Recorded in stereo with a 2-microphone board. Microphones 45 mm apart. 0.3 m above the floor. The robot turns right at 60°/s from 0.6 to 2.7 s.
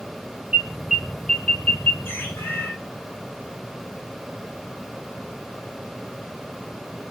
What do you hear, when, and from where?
0.5 s an alarm: 25° right (ahead or behind), 2.5 m; by 1.9 s 50° left (ahead or behind), 2.5 m
2.0 s a bird: 65° left, 8 m; by 2.7 s 105° left, 8 m